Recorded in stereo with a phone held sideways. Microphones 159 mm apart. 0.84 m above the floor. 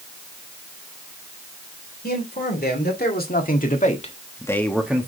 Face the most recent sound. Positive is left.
turn(degrees=-15)  # may be behind; listen again after turning